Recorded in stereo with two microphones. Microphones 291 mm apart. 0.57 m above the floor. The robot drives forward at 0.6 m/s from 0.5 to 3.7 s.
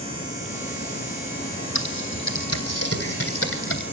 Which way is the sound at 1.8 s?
60° left (ahead or behind).